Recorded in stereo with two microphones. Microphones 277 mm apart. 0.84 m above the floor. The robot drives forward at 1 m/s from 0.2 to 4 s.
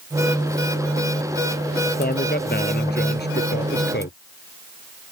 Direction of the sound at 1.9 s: 35° left (ahead or behind).